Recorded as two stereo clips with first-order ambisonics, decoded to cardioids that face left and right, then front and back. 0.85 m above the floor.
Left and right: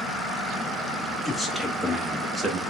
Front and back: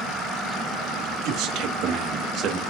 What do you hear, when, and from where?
1.2 s a man speaking: 175° right, 1.8 m; by 2.6 s 150° right, 1.0 m